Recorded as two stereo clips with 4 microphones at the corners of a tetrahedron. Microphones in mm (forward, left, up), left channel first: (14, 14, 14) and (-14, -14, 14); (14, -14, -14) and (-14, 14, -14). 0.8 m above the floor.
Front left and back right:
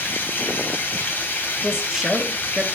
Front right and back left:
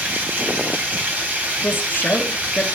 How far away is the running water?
About 3.5 m.